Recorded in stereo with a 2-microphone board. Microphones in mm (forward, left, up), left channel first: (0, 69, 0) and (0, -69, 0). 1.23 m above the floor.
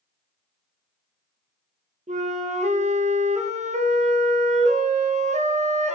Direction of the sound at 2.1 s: 55° right (ahead or behind).